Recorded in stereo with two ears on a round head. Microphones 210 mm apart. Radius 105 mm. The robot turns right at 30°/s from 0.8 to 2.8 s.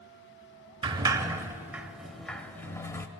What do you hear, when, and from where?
0.8 s a sliding door: 20° right (ahead or behind), 0.6 m; by 3.1 s 10° left (ahead or behind), 0.6 m